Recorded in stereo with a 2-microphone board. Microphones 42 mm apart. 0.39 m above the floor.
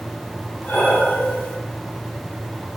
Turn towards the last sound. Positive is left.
turn(degrees=50)  # may be behind; listen again after turning